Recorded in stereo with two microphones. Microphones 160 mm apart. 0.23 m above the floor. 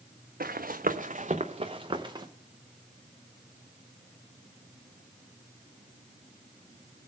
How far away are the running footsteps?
About 0.8 m.